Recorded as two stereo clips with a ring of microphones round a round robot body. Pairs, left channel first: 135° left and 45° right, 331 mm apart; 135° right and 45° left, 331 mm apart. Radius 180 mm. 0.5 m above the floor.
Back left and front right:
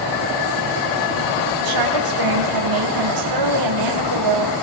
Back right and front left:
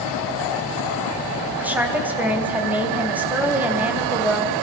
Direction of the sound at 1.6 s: 40° right.